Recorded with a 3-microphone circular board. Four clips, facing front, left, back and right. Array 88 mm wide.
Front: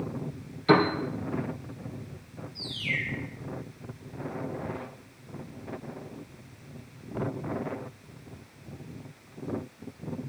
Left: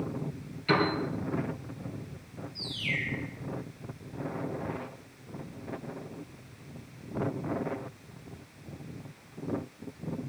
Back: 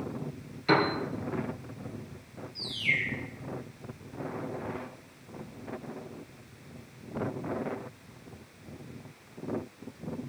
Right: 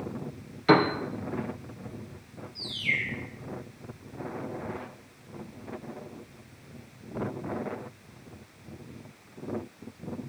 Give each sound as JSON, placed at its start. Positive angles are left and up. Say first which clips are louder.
{"t": 0.7, "sound": "a piano", "louder": "right 6 dB, front 4 dB", "azimuth_deg": -80, "distance_m": 3.0}
{"t": 2.5, "sound": "a bird", "louder": "right 3 dB, back 1 dB", "azimuth_deg": -140, "distance_m": 5.5}